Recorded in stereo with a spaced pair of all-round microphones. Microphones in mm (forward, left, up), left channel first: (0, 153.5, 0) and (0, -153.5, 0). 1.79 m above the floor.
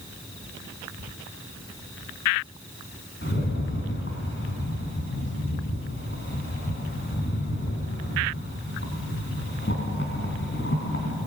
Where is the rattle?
40° left (ahead or behind), 4 m.